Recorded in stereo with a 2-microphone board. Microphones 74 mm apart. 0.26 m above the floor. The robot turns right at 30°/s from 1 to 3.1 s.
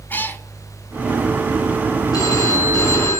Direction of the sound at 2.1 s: 65° left (ahead or behind).